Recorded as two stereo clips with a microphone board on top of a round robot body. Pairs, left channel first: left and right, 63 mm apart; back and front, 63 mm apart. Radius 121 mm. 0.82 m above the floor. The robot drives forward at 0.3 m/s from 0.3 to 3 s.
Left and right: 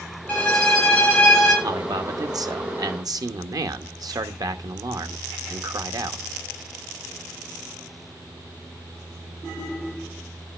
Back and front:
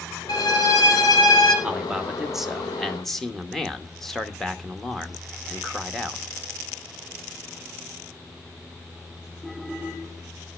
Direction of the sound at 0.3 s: 160° left.